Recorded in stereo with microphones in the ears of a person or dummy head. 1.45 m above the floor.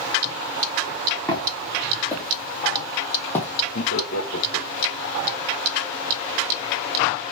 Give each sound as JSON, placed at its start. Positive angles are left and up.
{"t": 1.3, "sound": "footsteps", "side_deg": 10, "distance_m": 4.5}
{"t": 3.8, "sound": "laughter", "side_deg": 75, "distance_m": 1.5}